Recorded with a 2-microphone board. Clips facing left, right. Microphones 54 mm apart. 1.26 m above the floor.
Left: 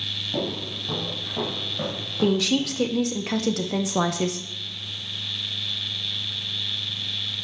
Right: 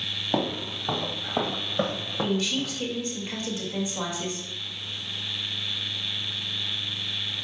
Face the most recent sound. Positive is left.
turn(degrees=80)